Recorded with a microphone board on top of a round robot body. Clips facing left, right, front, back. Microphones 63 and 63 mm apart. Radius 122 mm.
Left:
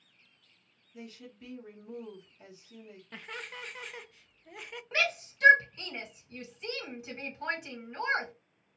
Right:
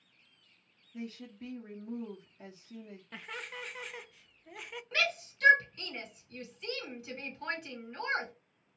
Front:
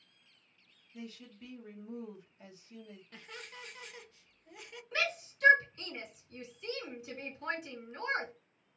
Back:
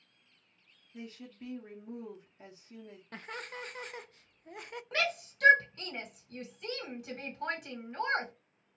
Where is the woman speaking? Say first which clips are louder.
Right 4 dB, back 2 dB; 125° right, 1.0 m.